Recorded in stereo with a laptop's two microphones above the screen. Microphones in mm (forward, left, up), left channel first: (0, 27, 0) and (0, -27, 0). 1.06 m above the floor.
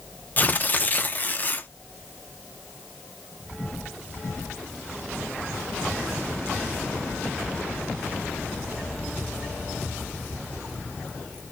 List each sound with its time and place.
0.4 s tearing paper: 30° left (ahead or behind), 0.6 m